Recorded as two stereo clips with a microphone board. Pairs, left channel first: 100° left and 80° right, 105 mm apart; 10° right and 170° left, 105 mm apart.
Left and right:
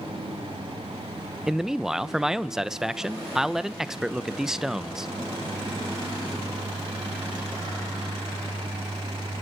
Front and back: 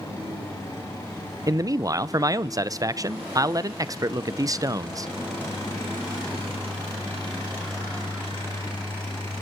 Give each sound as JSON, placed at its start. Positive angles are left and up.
{"t": 1.5, "sound": "a man speaking", "azimuth_deg": -165, "distance_m": 0.7}